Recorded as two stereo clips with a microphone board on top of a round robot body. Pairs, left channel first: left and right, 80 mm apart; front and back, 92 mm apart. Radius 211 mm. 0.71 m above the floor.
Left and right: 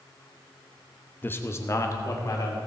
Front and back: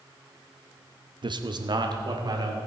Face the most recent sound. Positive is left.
turn(degrees=135)